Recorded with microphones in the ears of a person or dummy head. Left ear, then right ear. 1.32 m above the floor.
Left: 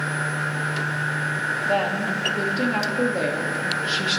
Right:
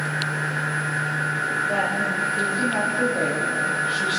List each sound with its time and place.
1.6 s a woman speaking: 55° left (ahead or behind), 1.8 m